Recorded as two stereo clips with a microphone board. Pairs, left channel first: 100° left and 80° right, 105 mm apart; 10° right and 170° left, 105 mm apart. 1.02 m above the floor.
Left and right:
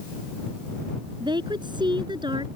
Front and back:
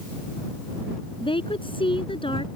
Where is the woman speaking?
40° right.